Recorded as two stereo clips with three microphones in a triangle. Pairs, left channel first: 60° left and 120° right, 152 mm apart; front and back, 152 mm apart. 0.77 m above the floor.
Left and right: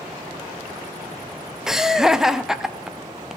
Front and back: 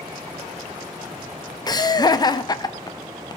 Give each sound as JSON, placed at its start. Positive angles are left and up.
{"t": 1.7, "sound": "laughter", "azimuth_deg": -35, "distance_m": 0.6}